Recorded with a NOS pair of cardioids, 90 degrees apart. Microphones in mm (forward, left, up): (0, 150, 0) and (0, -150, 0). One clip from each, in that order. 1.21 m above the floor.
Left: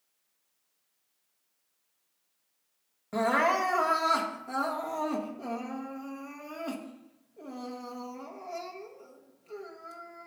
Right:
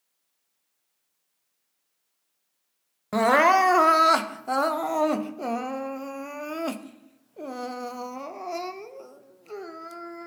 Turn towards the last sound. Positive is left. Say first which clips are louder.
# right 7 dB
turn(degrees=-50)